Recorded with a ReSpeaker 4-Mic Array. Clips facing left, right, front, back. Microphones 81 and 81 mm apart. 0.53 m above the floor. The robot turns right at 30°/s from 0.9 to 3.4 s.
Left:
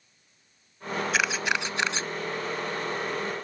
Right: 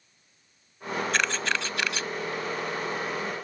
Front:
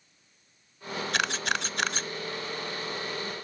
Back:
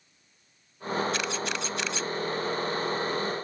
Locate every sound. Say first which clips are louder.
1.1 s a camera shutter: left 2 dB, front 2 dB; 5° left; by 2.1 s 35° left